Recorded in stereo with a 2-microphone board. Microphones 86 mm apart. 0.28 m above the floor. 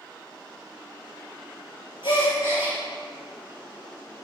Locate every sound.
2.0 s a gasp: 75° left (ahead or behind), 3.5 m